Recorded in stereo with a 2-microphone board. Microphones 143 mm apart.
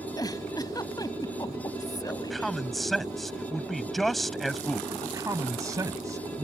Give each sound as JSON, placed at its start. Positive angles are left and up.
{"t": 0.2, "sound": "a giggle", "side_deg": 30}
{"t": 2.1, "sound": "a man speaking", "side_deg": 0}
{"t": 4.9, "sound": "a man speaking", "side_deg": -25}